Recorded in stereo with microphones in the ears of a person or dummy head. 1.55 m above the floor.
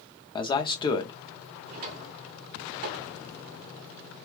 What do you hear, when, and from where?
0.3 s a man speaking: 30° left (ahead or behind), 0.6 m
1.7 s a drawer: 45° right (ahead or behind), 0.8 m